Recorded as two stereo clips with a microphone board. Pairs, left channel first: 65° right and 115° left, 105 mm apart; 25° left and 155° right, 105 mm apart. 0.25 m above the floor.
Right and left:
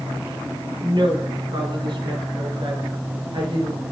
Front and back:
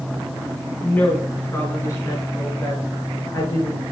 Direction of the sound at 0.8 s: 95° left.